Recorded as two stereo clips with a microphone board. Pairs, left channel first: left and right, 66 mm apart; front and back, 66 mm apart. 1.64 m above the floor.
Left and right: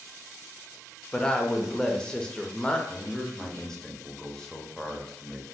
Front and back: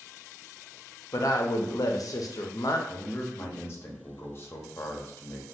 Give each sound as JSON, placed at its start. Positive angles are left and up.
{"t": 1.1, "sound": "a woman speaking", "azimuth_deg": 10, "distance_m": 0.5}
{"t": 2.9, "sound": "a man speaking", "azimuth_deg": 10, "distance_m": 0.7}